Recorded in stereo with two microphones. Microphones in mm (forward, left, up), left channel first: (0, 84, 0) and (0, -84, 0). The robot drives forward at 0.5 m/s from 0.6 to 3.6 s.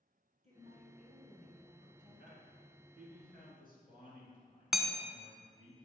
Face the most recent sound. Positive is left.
turn(degrees=0)  # may be behind; listen again after turning